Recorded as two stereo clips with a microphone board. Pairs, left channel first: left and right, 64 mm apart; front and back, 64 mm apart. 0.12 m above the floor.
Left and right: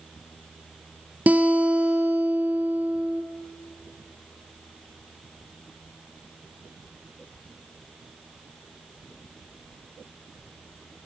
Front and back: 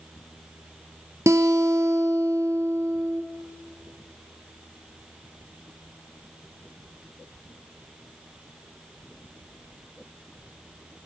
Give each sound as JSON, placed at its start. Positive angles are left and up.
{"t": 1.3, "sound": "a guitar", "azimuth_deg": -150, "distance_m": 2.0}